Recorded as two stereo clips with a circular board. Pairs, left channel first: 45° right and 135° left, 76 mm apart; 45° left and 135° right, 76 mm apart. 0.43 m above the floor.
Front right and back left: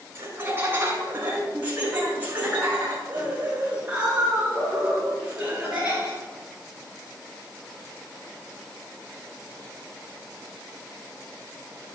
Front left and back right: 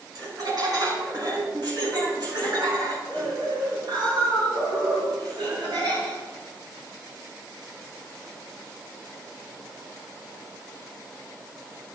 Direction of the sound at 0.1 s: 170° right.